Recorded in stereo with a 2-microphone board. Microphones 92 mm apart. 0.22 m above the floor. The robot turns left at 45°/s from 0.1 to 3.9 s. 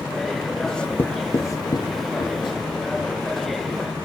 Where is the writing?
5° left (ahead or behind), 0.6 m; by 2.5 s 60° left (ahead or behind), 0.6 m.